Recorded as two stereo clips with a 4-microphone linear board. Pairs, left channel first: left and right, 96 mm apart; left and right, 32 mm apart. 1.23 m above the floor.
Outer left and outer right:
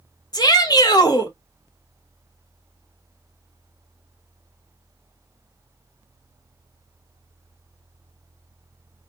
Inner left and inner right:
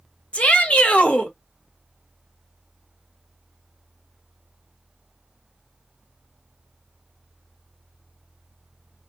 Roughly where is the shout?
Left.